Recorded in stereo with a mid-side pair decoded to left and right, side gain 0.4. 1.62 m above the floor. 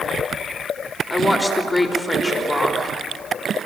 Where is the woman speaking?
10° left, 3.5 m.